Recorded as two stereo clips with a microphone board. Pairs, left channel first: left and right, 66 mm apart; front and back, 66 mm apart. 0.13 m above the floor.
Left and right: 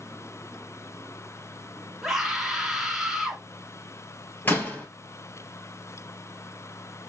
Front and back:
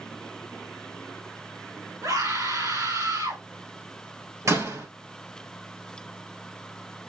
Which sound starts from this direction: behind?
A scream, at 2.0 s.